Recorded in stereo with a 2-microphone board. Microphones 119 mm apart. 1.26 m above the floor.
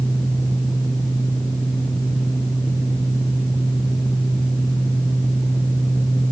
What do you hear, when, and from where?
Only background noise.